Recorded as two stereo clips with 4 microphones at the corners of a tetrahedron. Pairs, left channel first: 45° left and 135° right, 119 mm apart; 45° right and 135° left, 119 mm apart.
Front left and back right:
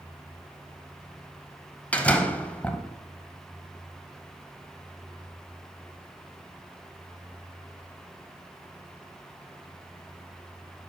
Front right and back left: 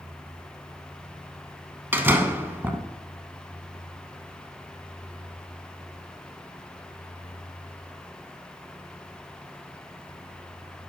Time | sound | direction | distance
1.9 | a door slam | 105° left | 0.7 m